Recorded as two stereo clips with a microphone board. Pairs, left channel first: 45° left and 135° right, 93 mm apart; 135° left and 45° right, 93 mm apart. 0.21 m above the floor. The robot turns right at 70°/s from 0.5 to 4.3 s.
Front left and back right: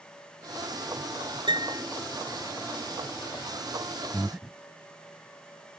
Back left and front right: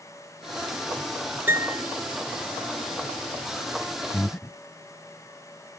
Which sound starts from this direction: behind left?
Breathing, at 4.1 s.